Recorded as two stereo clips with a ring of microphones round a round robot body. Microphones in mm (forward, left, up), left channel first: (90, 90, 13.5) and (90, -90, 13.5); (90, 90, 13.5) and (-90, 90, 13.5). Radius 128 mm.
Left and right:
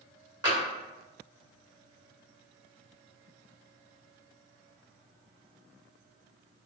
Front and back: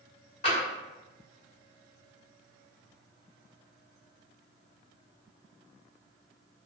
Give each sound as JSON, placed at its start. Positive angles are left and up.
{"t": 0.4, "sound": "tapping", "azimuth_deg": -35, "distance_m": 1.4}